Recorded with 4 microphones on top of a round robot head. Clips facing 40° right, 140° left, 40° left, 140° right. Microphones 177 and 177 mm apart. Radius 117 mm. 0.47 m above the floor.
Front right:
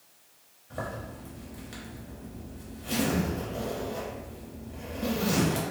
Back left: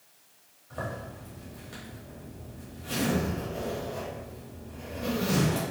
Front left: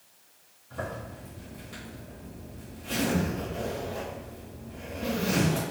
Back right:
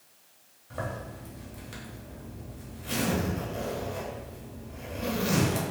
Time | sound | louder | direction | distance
0.7 | a zipper | even, even | 105° right | 1.3 m